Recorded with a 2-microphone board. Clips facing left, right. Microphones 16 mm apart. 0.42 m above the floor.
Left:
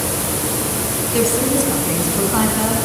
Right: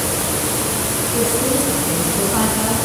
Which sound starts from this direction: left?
A woman speaking, at 1.1 s.